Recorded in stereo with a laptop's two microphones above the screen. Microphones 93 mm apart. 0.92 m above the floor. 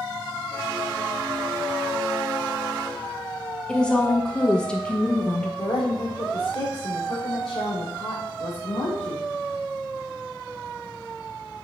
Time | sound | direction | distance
3.7 | a woman speaking | 10° left (ahead or behind) | 0.5 m
5.6 | a woman speaking | 80° left | 2 m